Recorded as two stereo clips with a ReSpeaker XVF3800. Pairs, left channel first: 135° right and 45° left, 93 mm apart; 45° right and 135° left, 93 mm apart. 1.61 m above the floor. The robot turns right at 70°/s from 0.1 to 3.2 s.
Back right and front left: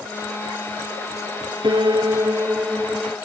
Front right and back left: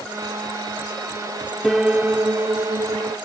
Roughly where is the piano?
Ahead left.